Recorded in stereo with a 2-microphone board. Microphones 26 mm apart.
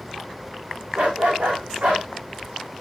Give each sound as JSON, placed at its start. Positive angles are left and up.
{"t": 0.9, "sound": "a dog barking", "side_deg": -85, "distance_m": 5.5}